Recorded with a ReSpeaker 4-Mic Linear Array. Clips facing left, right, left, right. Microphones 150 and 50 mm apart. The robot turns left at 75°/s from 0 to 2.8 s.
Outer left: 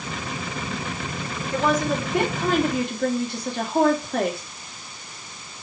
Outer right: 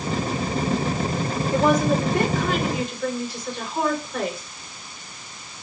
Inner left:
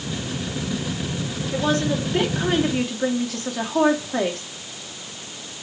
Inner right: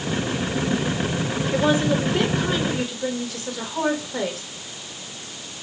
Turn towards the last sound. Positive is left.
turn(degrees=115)